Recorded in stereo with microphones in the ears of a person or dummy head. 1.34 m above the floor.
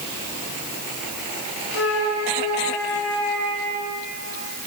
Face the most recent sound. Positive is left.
turn(degrees=85)